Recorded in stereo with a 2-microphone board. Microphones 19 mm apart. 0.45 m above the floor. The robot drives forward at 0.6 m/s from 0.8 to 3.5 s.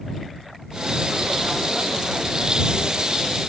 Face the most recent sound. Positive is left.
No sound to turn to.